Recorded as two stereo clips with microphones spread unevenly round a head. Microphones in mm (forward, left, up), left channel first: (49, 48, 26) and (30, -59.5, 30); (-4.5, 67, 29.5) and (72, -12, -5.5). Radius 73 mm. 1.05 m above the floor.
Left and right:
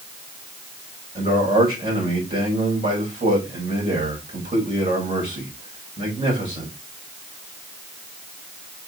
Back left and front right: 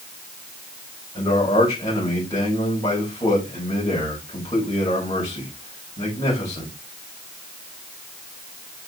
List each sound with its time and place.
1.1 s a man speaking: 155° right, 5.5 m